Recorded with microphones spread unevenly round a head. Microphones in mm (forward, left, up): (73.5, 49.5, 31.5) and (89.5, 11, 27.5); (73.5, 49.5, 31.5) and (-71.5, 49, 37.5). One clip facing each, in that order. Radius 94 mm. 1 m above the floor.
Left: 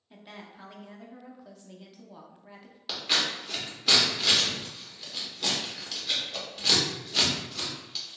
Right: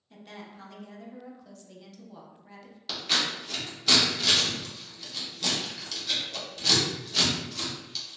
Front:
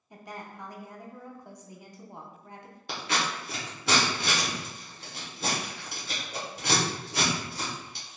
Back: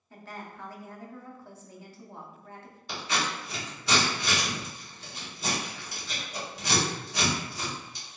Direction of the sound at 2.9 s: 35° left.